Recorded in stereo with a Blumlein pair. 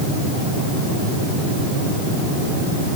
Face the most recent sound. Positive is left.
No sound to turn to.